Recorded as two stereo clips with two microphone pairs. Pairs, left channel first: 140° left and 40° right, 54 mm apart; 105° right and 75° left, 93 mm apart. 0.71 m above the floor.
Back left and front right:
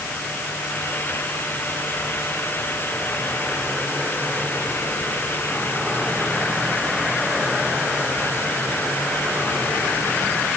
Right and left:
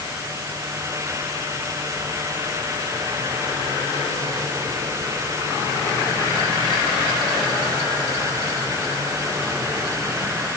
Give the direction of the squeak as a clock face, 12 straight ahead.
I don't hear a squeak.